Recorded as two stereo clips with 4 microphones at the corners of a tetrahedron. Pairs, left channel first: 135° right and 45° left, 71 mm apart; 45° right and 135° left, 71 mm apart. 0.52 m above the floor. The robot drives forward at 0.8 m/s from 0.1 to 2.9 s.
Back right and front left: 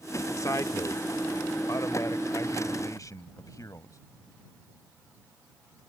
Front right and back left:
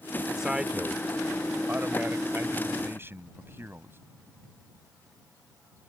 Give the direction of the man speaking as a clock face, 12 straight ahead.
5 o'clock.